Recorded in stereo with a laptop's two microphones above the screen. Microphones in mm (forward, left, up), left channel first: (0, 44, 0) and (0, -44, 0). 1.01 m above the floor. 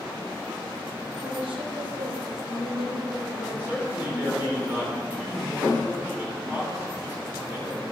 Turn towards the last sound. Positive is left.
turn(degrees=-20)  # may be behind; listen again after turning